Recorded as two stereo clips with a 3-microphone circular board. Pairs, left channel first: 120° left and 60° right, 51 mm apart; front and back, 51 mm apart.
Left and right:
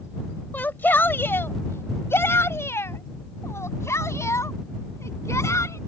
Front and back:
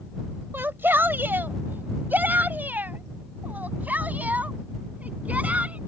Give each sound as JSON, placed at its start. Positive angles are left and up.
{"t": 0.5, "sound": "a shout", "azimuth_deg": 155}